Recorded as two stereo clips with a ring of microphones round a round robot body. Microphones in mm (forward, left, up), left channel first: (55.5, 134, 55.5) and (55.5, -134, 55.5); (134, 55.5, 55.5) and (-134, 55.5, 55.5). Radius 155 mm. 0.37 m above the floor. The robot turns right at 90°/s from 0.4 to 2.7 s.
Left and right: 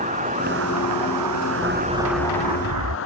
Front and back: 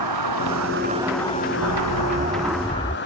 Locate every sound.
0.0 s an insect: 160° right; by 3.1 s 50° left
1.6 s an explosion: 175° right; by 3.0 s 75° right